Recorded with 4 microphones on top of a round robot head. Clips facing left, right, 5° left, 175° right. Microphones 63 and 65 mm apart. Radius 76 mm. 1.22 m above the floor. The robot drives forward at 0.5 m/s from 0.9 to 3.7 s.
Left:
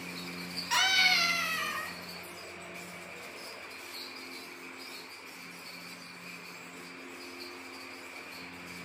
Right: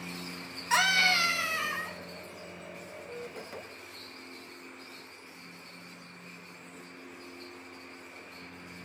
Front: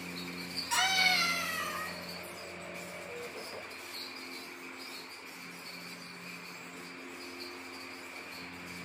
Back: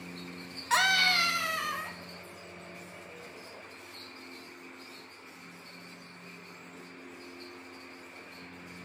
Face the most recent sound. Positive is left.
turn(degrees=-165)